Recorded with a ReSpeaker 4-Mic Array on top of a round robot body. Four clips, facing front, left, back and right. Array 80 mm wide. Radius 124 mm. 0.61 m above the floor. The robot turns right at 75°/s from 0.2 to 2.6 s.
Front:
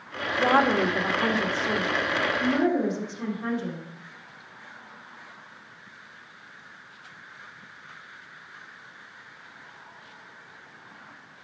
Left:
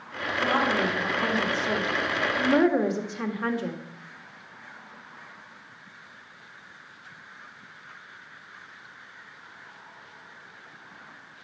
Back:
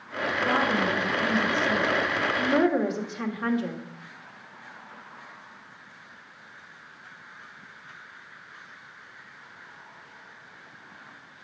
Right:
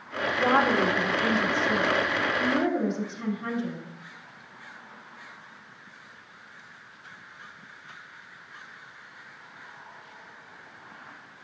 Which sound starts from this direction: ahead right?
A woman speaking, at 0.4 s.